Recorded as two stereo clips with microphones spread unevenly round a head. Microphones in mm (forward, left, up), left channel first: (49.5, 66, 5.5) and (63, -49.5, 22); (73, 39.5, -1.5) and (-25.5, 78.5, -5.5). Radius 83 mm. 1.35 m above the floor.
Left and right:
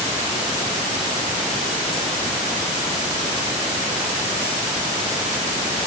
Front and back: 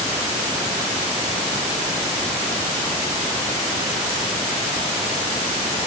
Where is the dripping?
I don't hear dripping.